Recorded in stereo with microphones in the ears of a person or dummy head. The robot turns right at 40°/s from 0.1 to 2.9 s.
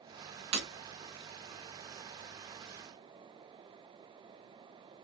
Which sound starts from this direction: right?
Breaking glass, at 0.5 s.